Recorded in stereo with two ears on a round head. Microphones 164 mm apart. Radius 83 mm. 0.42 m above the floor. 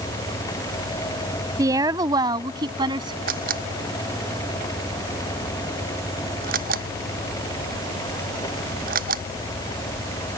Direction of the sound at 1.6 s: 20° right (ahead or behind).